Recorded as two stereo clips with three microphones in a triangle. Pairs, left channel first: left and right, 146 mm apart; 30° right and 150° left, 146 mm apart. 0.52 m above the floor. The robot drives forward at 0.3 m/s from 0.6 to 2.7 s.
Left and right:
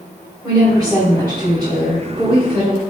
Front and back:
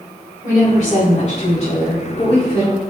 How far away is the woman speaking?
About 1.5 m.